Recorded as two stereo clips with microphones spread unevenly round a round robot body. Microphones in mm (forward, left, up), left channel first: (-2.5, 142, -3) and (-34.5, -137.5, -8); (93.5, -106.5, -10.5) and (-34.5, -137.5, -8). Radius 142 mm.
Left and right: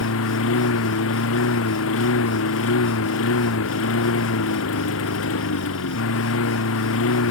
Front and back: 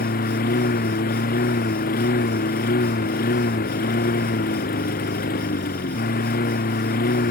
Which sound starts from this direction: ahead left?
A lawn mower, at 0.0 s.